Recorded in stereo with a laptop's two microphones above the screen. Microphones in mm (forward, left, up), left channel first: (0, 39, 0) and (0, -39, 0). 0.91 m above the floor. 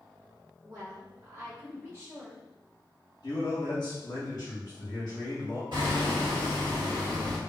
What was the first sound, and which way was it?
A woman speaking, 35° right (ahead or behind).